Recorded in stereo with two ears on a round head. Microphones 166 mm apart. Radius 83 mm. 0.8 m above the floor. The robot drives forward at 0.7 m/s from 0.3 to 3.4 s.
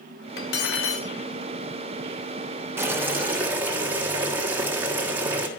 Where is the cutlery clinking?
55° left (ahead or behind), 1.2 m; by 1.1 s 80° left, 1.0 m.